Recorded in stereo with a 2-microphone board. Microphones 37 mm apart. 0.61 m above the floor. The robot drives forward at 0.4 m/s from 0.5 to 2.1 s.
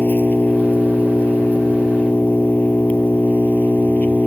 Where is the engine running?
50° left (ahead or behind); by 4.3 s 45° left (ahead or behind).